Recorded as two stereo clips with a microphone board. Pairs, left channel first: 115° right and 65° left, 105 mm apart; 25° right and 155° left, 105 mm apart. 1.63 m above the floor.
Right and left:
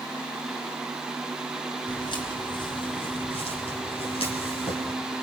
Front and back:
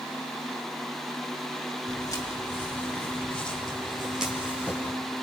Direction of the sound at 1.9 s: 80° right.